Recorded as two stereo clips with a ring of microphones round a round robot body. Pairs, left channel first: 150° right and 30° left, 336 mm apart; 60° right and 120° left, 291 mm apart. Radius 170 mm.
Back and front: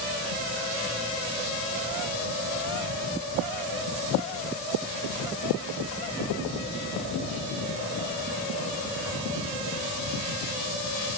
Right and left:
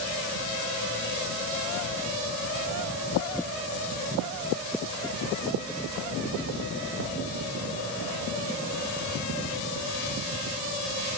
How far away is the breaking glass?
I don't hear breaking glass.